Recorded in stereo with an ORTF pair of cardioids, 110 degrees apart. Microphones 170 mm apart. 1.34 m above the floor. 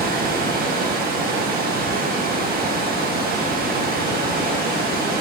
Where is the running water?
60° right, 1.7 m.